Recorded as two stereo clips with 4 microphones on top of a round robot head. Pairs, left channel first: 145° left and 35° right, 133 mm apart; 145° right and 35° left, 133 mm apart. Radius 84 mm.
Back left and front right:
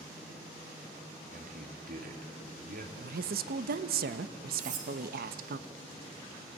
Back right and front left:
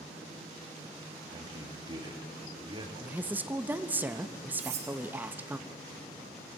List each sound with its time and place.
1.3 s a man speaking: 20° right, 3 m
3.0 s a woman speaking: 40° right, 0.8 m
4.6 s cutlery clinking: 5° right, 2.5 m